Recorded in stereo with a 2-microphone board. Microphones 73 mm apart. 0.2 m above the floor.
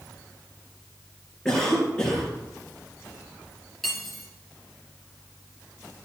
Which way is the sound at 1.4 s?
10° left (ahead or behind).